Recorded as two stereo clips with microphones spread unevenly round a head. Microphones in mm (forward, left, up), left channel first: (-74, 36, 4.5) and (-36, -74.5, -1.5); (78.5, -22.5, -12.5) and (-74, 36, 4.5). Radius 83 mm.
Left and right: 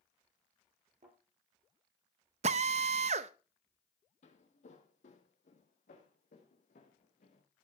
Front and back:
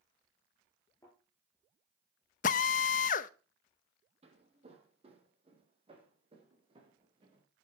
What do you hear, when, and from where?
1.0 s a thud: 95° right, 8.5 m
2.4 s a drill: 50° right, 0.6 m
4.2 s footsteps: 110° left, 2.5 m; by 7.4 s 100° left, 4 m